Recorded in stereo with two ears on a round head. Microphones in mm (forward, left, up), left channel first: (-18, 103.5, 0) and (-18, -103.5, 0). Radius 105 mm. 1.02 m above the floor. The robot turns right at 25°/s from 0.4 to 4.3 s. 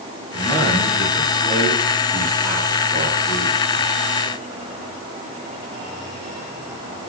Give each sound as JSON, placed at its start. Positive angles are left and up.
{"t": 0.3, "sound": "a man speaking", "azimuth_deg": -20, "distance_m": 8.0}